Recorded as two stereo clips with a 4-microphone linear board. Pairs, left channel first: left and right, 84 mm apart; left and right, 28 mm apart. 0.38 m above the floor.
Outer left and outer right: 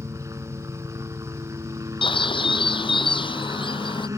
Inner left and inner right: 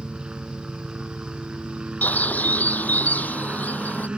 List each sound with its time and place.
0.0 s a helicopter: 40° right (ahead or behind)
2.0 s a bird: 85° left